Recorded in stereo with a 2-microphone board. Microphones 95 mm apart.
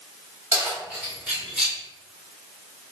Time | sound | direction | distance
0.5 | keys jangling | 20° right (ahead or behind) | 1.7 m